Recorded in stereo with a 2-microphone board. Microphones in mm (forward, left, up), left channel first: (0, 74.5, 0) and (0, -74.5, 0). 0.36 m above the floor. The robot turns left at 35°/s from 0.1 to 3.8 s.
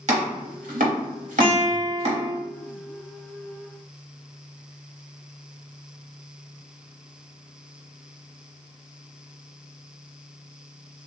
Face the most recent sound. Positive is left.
turn(degrees=160)